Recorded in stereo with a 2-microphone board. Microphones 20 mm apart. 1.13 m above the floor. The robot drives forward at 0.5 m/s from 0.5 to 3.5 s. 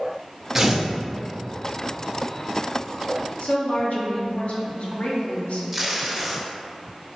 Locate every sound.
0.6 s tearing paper: 15° right (ahead or behind), 0.5 m
3.4 s a woman speaking: 75° left (ahead or behind), 0.7 m; by 5.6 s 70° left (ahead or behind), 0.8 m
5.7 s tape being pulled: 5° right (ahead or behind), 0.6 m